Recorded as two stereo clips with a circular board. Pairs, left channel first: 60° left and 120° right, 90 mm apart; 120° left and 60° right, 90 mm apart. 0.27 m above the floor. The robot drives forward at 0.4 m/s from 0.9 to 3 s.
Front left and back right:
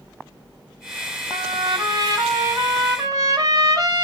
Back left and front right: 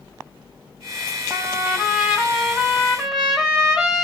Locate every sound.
1.3 s a trumpet: 125° right, 1.7 m; by 4.0 s 145° right, 2 m